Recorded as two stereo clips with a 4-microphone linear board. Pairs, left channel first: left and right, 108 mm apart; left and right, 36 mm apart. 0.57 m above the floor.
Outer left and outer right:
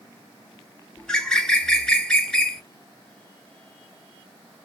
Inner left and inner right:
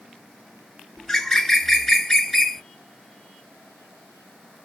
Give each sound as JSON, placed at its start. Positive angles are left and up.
{"t": 1.0, "sound": "a bird", "side_deg": 5, "distance_m": 0.7}